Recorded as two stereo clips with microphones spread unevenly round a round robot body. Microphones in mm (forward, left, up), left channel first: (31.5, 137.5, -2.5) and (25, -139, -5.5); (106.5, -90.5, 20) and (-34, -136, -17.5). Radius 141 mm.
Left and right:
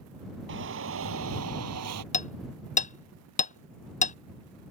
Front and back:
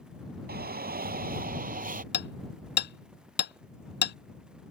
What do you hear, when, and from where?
0.5 s a shout: 145° right; by 2.0 s 130° right
2.1 s hammering: 25° left